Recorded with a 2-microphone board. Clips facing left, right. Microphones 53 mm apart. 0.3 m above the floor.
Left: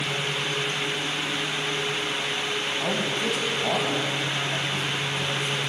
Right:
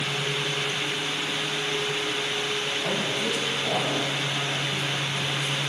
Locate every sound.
2.8 s a man speaking: 35° left (ahead or behind), 2.5 m